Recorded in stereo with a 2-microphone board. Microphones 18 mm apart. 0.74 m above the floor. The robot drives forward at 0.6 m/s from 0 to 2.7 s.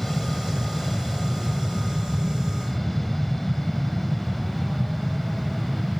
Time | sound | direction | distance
0.0 | an aircraft | 15° left (ahead or behind) | ?